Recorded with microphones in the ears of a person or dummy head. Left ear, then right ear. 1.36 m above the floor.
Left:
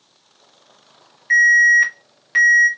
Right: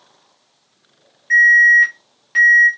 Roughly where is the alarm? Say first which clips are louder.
Right 2 dB; centre.